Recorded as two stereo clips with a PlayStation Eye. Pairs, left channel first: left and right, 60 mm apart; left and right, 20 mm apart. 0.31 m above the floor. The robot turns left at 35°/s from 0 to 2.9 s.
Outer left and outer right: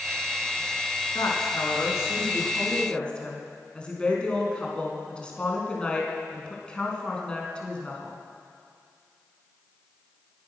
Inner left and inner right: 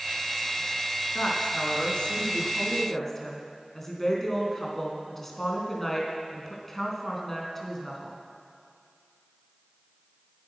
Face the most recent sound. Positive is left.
turn(degrees=15)